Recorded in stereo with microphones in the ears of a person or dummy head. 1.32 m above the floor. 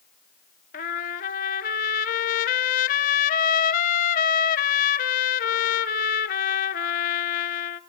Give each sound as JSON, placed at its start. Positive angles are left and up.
{"t": 0.7, "sound": "a trumpet", "side_deg": 45, "distance_m": 0.9}